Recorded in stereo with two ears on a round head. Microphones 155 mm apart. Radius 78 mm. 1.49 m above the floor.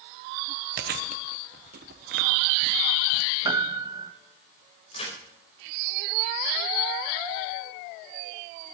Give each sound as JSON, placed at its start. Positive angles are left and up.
{"t": 0.8, "sound": "chewing", "side_deg": -60, "distance_m": 1.2}
{"t": 3.5, "sound": "a piano", "side_deg": -20, "distance_m": 1.0}
{"t": 4.9, "sound": "a crack", "side_deg": 35, "distance_m": 5.0}